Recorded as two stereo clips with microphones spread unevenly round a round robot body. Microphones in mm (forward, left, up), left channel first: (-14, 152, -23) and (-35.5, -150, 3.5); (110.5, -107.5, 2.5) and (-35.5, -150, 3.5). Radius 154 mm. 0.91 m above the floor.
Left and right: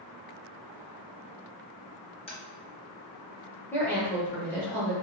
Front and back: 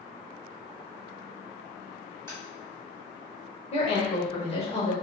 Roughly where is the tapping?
Behind left.